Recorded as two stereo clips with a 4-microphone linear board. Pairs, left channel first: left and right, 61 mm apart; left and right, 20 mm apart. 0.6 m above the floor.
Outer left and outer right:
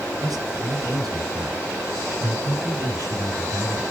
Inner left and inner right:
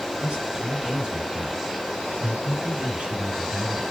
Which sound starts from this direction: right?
A man speaking, at 0.2 s.